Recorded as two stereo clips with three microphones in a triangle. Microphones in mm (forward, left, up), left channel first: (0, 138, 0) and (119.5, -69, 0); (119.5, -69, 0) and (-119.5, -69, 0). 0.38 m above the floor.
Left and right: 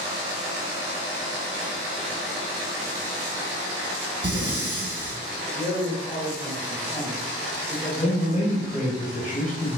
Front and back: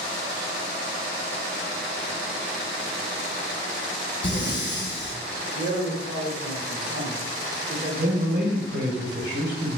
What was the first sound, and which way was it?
Breathing, 45° right.